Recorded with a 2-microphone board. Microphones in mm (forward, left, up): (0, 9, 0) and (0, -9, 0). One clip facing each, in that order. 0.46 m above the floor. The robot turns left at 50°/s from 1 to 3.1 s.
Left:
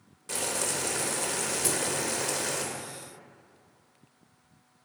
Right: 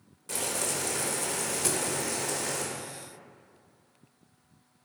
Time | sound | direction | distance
0.3 | boiling | 160° left | 1.2 m
1.6 | a thud | 10° right (ahead or behind) | 0.7 m